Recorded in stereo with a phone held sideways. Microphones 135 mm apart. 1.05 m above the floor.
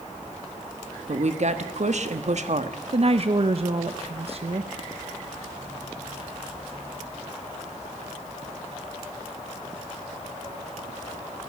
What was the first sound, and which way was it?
A woman speaking, 60° right (ahead or behind).